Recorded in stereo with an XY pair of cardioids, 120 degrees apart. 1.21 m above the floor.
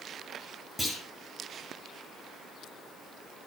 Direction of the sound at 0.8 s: 5° right.